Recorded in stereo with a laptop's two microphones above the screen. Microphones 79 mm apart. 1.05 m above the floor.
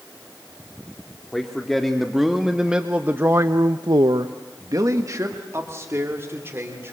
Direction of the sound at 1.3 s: 5° left (ahead or behind).